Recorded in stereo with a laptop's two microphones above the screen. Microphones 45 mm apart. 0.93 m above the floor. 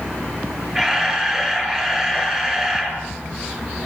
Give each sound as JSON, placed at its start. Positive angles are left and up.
{"t": 0.8, "sound": "a camera shutter", "side_deg": -15, "distance_m": 9.0}